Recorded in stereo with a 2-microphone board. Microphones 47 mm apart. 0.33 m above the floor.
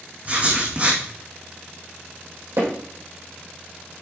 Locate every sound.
0.2 s writing: 30° right (ahead or behind), 2.5 m
2.6 s hammering: 80° right, 4 m